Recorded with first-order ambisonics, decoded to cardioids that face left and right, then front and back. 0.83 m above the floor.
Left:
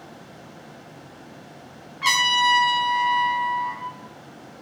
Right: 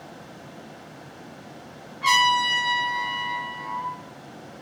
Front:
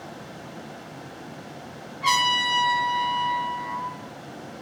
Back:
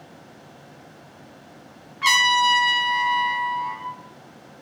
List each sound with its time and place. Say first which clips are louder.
2.0 s a trumpet: even, back 4 dB; 150° left, 0.8 m